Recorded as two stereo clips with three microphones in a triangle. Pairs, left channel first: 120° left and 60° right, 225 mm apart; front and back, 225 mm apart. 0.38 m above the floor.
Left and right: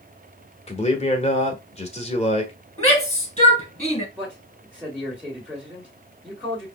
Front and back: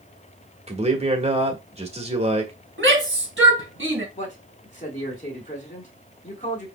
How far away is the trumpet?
I don't hear a trumpet.